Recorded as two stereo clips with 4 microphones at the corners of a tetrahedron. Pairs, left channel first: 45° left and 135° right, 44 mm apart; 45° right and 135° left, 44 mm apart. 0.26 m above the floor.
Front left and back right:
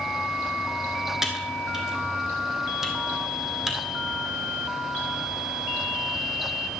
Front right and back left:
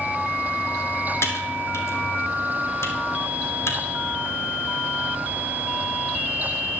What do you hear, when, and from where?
1.2 s typing on a keyboard: 55° right, 1.7 m